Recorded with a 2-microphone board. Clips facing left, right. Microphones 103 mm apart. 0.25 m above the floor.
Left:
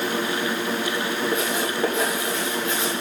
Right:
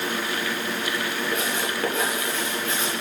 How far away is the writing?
About 7 m.